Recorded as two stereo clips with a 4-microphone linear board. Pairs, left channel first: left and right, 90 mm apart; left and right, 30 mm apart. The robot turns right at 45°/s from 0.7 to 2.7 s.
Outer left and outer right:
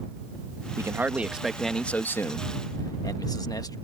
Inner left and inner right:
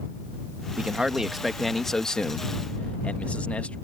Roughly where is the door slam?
No door slam in this recording.